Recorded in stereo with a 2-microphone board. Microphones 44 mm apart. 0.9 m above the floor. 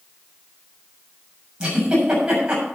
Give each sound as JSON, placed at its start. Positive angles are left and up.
{"t": 1.6, "sound": "a giggle", "side_deg": -15, "distance_m": 7.0}